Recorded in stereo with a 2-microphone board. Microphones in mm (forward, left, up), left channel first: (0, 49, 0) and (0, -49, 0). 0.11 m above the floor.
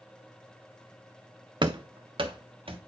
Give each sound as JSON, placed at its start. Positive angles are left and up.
{"t": 1.6, "sound": "running footsteps", "side_deg": -55, "distance_m": 0.6}